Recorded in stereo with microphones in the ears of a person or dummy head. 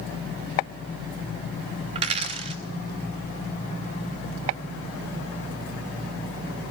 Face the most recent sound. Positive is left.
turn(degrees=-40)  # may be behind; listen again after turning